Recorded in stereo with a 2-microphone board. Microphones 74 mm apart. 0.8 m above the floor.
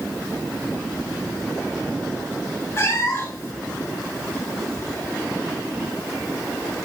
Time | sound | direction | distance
2.8 | a cat meowing | 30° left (ahead or behind) | 0.6 m